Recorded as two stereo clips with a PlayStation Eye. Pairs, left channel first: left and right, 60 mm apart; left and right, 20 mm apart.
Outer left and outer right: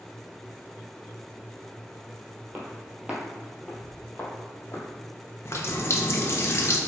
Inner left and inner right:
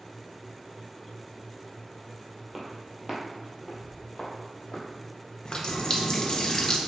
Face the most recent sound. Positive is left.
turn(degrees=45)  # may be behind; listen again after turning